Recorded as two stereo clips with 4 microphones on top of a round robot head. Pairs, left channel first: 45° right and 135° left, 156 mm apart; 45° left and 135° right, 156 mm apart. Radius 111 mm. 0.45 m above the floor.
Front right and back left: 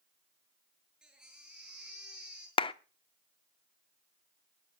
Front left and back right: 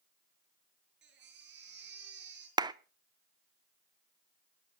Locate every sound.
1.0 s a baby crying: 140° right, 7 m
2.6 s a clap: 85° right, 0.7 m